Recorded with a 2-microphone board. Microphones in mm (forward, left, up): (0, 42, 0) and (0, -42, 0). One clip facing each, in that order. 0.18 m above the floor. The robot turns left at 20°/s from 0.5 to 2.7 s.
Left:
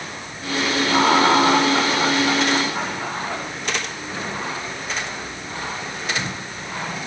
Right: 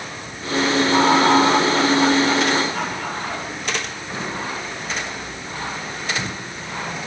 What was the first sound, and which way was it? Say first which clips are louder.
Laughter: even; 60° left.